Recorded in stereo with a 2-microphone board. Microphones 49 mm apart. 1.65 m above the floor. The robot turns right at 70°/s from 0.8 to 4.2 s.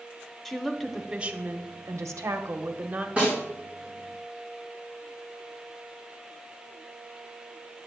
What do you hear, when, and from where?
0.5 s a woman speaking: 175° left, 0.7 m; by 3.1 s 25° right, 0.7 m
3.2 s a snare drum: 30° right (ahead or behind), 3.5 m; by 3.4 s 40° right (ahead or behind), 3.5 m